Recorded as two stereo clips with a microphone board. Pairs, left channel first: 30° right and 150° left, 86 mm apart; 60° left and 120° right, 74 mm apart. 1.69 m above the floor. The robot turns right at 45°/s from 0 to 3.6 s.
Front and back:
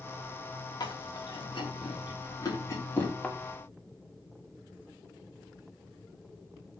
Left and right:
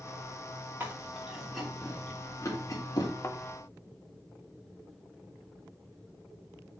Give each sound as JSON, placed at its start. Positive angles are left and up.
{"t": 0.8, "sound": "chewing", "azimuth_deg": -65, "distance_m": 3.0}
{"t": 3.2, "sound": "a thud", "azimuth_deg": 40, "distance_m": 1.2}